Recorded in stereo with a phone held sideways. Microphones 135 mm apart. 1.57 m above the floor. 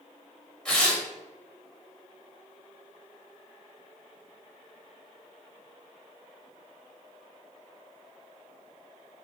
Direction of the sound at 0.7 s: 5° left (ahead or behind).